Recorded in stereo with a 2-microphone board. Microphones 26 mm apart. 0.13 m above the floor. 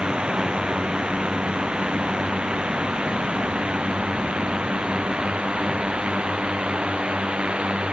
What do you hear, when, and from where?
0.0 s a drone: 35° right (ahead or behind); by 7.9 s 40° right (ahead or behind)